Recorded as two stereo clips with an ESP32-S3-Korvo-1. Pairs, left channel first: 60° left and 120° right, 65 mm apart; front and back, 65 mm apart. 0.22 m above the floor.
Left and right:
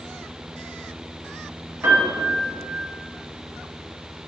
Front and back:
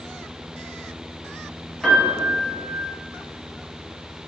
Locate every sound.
1.8 s a piano: 80° right, 1.8 m